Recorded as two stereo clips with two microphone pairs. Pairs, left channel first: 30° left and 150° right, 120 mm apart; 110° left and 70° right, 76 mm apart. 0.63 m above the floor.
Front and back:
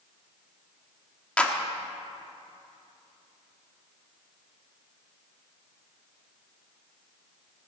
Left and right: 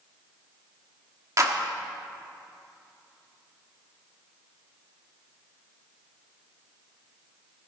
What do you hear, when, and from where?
1.4 s a clap: 45° right, 1.2 m